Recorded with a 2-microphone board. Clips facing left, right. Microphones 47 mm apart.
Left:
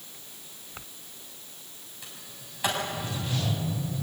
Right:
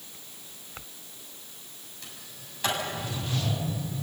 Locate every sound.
2.0 s a sliding door: 10° left (ahead or behind), 6.5 m